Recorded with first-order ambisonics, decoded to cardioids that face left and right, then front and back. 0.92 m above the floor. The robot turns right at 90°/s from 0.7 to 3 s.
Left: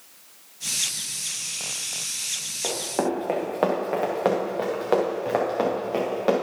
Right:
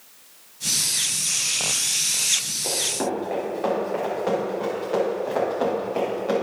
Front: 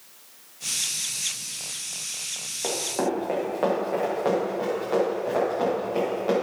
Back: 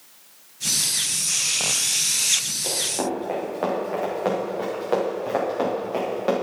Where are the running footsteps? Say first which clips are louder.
Right 1 dB, back 1 dB; 45° left, 4 m; by 6.3 s 120° left, 7 m.